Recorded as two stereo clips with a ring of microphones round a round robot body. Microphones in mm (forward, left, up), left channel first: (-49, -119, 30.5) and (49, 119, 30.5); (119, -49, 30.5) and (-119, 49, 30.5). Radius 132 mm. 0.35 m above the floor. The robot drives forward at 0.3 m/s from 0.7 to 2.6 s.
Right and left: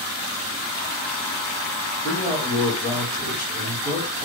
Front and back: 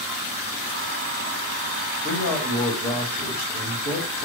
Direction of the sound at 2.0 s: 170° left.